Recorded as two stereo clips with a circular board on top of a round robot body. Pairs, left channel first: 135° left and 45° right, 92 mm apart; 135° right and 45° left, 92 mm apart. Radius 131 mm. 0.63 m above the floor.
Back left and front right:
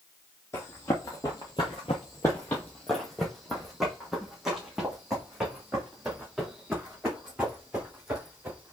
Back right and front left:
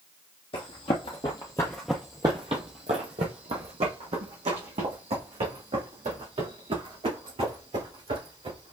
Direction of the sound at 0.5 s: 160° right.